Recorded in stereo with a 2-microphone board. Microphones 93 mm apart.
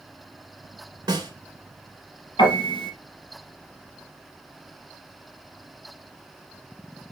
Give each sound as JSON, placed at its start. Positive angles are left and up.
{"t": 1.1, "sound": "a snare drum", "side_deg": -50, "distance_m": 2.5}
{"t": 2.4, "sound": "a piano", "side_deg": 55, "distance_m": 5.5}